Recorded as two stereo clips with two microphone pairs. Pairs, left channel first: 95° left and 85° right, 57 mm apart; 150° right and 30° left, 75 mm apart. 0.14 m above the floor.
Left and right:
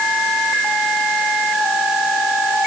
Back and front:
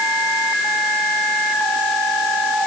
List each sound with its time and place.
Only background noise.